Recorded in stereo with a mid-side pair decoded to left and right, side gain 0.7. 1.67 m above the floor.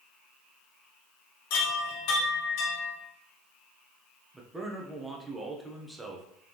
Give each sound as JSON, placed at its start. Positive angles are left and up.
{"t": 1.5, "sound": "a chime", "azimuth_deg": 70, "distance_m": 1.9}
{"t": 4.3, "sound": "a man speaking", "azimuth_deg": -10, "distance_m": 1.0}